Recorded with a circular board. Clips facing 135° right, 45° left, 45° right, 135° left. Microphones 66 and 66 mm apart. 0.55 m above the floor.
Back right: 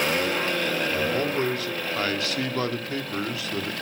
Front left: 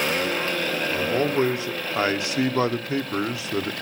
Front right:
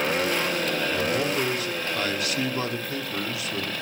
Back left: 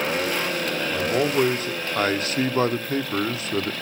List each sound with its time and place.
0.9 s a man speaking: 105° left, 0.9 m